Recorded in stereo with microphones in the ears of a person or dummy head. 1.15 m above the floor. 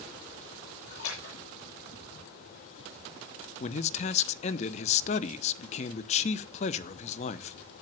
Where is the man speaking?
40° left (ahead or behind), 0.9 m.